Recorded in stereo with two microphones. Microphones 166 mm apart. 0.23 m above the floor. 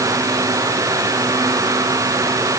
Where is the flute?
I don't hear a flute.